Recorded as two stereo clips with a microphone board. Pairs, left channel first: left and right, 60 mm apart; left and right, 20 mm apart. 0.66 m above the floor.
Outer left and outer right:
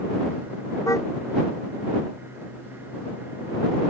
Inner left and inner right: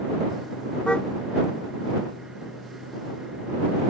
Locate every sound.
0.9 s a car horn: 90° left